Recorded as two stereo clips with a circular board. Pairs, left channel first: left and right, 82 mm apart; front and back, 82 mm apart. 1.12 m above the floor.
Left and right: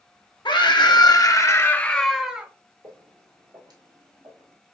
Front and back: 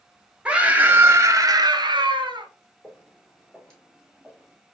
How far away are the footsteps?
About 1.9 m.